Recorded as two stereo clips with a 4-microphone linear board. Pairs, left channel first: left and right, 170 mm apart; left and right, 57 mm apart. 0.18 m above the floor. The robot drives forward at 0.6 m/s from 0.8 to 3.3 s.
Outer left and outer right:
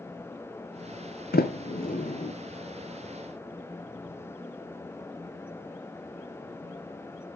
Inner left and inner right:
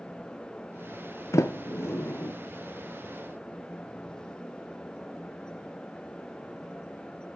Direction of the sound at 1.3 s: 70° left (ahead or behind).